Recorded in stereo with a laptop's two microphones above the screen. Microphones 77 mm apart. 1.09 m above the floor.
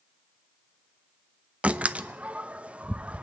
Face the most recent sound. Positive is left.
turn(degrees=-20)  # may be behind; listen again after turning